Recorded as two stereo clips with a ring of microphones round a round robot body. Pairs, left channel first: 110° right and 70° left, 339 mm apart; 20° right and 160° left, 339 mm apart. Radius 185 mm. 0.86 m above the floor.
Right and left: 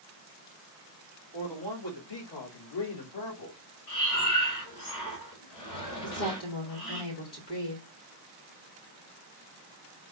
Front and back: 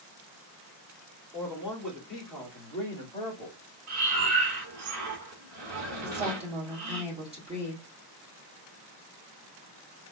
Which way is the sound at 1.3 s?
120° right.